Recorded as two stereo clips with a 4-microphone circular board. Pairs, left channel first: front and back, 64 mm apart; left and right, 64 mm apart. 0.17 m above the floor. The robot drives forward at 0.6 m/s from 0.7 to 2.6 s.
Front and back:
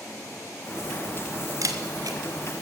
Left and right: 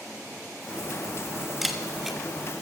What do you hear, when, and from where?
1.6 s a camera shutter: straight behind, 1.2 m